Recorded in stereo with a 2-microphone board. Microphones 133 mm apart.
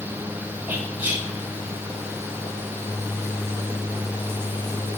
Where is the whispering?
15° right (ahead or behind), 1.7 m.